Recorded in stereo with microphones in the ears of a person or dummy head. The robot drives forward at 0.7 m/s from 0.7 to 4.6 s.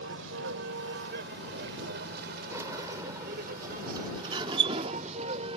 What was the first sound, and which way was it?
A vehicle, 80° right.